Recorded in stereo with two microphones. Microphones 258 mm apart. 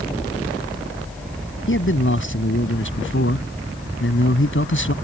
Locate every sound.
1.7 s a man speaking: 50° left (ahead or behind)